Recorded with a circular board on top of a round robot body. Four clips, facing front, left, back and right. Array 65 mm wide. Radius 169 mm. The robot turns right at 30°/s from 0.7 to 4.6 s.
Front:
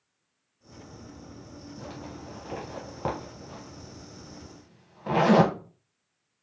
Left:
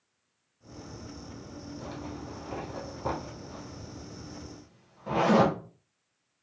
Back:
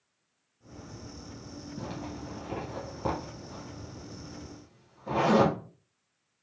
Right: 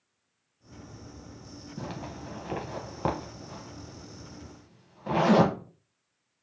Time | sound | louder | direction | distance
1.8 | a zipper | right 2 dB, back 3 dB | 105° right | 0.7 m